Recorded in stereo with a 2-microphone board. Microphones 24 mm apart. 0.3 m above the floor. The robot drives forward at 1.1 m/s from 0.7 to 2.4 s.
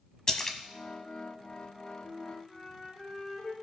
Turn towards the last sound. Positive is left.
turn(degrees=20)  # may be behind; listen again after turning